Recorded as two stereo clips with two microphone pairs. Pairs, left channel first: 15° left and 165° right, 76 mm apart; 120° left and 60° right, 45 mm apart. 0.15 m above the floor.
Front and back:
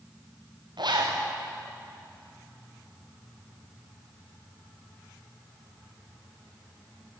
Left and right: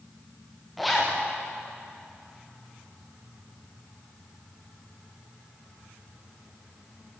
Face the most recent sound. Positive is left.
turn(degrees=-150)